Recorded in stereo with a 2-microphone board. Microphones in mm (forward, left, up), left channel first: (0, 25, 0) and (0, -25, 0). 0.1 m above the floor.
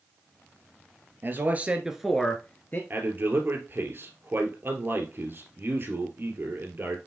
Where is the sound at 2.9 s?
45° right (ahead or behind), 2 m.